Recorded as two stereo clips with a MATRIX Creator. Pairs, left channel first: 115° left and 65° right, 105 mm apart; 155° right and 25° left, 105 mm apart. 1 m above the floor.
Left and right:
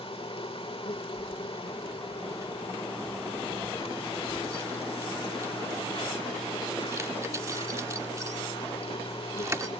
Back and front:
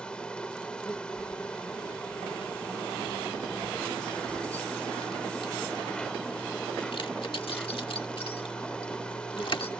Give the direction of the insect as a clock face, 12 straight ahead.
8 o'clock.